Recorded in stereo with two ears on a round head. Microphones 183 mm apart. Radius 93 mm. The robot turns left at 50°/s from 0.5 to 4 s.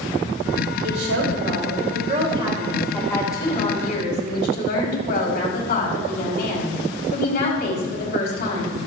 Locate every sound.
0.8 s a woman speaking: 75° right, 3 m; by 8.8 s 125° left, 3 m